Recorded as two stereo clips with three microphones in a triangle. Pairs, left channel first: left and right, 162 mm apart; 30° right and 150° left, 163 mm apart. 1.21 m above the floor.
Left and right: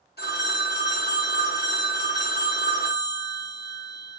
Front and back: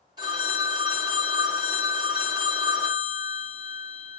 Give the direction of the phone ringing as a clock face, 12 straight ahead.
9 o'clock.